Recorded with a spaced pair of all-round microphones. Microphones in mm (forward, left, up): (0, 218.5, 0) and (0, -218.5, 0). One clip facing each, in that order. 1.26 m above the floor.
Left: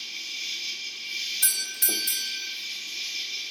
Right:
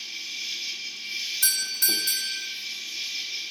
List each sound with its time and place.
0.0 s an insect: 35° right (ahead or behind), 2 m
1.4 s a doorbell: 20° right (ahead or behind), 0.7 m